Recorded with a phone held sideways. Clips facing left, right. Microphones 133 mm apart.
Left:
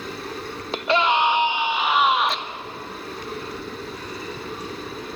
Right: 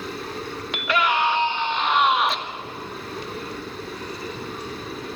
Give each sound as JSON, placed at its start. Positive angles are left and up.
{"t": 0.7, "sound": "a scream", "side_deg": 35, "distance_m": 1.3}